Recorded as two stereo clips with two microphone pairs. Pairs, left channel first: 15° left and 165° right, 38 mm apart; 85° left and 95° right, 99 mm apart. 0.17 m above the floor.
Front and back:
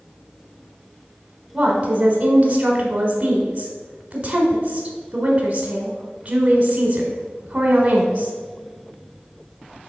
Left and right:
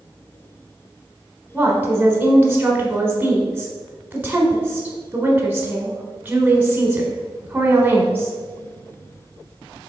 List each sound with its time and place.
1.5 s a woman speaking: 155° right, 1.1 m